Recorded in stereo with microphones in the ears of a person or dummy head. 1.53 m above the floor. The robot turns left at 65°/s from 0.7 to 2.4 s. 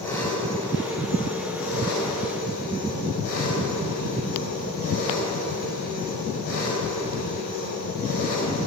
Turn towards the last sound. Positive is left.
turn(degrees=55)